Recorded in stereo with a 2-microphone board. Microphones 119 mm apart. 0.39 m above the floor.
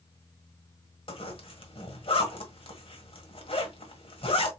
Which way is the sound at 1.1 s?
55° left (ahead or behind).